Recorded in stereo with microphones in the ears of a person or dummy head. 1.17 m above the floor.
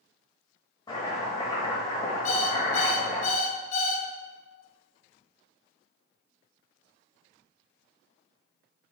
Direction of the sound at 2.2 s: 50° left (ahead or behind).